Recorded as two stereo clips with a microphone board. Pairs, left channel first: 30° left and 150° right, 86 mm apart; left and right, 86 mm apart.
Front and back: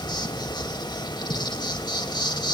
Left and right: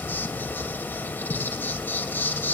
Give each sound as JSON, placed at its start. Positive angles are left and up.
{"t": 0.0, "sound": "an insect", "azimuth_deg": 30, "distance_m": 2.0}